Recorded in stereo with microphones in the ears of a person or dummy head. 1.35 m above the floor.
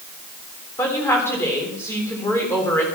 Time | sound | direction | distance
0.8 | a woman speaking | 20° left (ahead or behind) | 3.5 m